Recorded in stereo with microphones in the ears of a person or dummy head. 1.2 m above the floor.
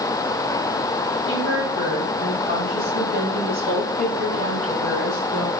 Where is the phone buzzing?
No phone buzzing in this recording.